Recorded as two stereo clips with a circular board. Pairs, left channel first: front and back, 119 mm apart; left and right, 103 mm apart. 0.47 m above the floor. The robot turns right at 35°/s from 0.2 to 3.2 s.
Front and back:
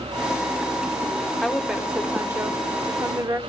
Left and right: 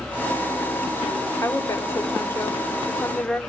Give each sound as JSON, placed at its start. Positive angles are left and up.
{"t": 1.4, "sound": "a woman speaking", "azimuth_deg": 90, "distance_m": 0.8}